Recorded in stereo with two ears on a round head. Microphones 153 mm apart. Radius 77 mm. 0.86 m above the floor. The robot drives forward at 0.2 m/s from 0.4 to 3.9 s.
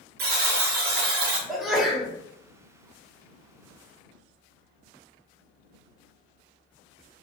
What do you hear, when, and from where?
0.2 s a buzzer: 60° right (ahead or behind), 0.7 m; by 1.4 s 65° right (ahead or behind), 0.6 m
1.5 s a sneeze: centre (ahead or behind), 0.8 m